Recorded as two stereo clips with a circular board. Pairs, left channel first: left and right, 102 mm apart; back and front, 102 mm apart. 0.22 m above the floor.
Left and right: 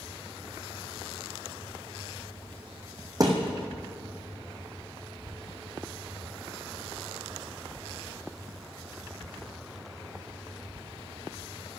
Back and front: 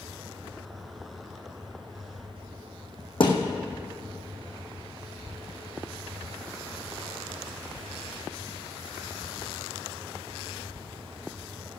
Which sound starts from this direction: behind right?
A thud, at 3.2 s.